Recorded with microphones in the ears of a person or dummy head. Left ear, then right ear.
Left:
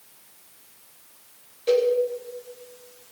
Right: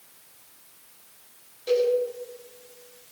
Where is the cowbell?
5° left (ahead or behind), 3.5 m.